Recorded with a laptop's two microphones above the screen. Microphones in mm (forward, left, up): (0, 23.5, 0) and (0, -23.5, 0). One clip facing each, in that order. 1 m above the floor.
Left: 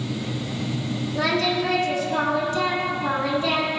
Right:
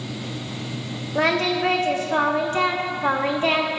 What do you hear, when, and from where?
1.1 s singing: 45° right (ahead or behind), 1.3 m